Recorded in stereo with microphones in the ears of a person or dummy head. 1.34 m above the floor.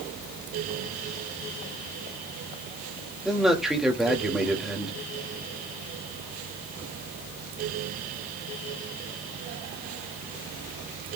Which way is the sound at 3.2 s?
Centre (ahead or behind).